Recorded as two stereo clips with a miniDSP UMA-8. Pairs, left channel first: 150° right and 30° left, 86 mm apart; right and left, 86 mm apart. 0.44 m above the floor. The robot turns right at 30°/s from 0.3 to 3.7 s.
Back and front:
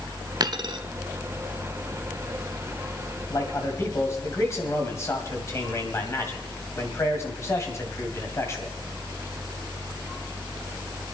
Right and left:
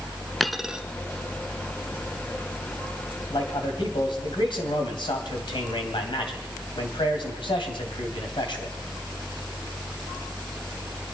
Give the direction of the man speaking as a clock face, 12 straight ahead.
4 o'clock.